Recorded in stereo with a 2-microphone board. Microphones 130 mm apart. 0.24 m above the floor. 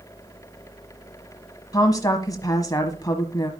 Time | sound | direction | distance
1.7 | a woman speaking | 30° left (ahead or behind) | 1.4 m